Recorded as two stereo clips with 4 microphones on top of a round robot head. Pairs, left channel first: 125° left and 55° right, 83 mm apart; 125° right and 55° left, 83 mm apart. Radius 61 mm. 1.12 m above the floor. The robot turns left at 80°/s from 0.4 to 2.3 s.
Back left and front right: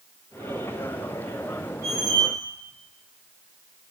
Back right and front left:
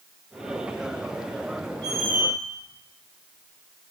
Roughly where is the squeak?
Ahead.